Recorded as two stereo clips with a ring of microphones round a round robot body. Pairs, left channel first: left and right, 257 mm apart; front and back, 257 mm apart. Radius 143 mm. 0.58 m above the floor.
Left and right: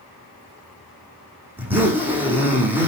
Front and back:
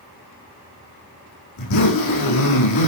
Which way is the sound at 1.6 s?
5° right.